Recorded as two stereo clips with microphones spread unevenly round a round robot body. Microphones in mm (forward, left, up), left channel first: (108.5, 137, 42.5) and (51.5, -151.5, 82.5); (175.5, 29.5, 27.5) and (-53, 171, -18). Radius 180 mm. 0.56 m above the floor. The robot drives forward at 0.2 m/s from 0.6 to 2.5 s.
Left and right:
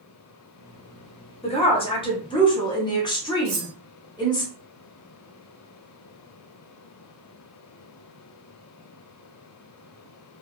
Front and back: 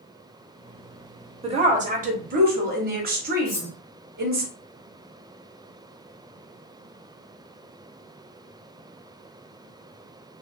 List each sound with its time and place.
1.4 s a woman speaking: 120° left, 0.8 m; by 4.5 s 135° left, 0.8 m
3.5 s cutlery clinking: 85° right, 1.1 m